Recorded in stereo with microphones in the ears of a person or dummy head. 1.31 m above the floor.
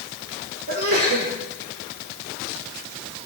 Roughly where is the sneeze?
Right.